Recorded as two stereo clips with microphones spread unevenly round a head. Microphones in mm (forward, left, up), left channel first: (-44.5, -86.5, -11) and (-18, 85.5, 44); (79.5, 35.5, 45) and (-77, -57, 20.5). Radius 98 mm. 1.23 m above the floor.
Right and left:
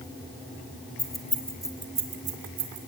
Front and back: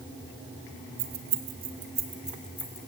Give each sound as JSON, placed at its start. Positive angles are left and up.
{"t": 1.0, "sound": "keys jangling", "azimuth_deg": 175, "distance_m": 2.0}